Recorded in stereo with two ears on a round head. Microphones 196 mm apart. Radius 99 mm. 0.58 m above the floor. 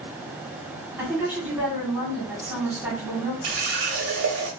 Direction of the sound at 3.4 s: 60° right (ahead or behind).